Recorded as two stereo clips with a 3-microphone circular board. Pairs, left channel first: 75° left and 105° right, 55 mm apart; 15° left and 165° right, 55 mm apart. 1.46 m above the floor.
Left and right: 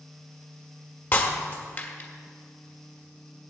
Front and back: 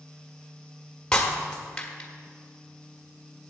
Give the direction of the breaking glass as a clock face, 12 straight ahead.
9 o'clock.